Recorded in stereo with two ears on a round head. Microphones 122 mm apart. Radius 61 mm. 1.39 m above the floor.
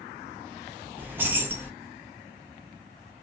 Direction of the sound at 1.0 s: 15° right (ahead or behind).